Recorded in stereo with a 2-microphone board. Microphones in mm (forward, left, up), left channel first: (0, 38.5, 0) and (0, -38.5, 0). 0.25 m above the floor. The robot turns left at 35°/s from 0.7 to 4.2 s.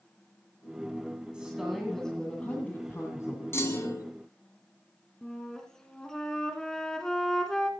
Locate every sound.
1.3 s a woman speaking: 165° right, 1.9 m; by 3.4 s 125° left, 1.9 m
3.5 s a clunk: 35° left (ahead or behind), 1.4 m; by 4.1 s 45° left (ahead or behind), 1.4 m
5.2 s a flute: 5° left (ahead or behind), 1.8 m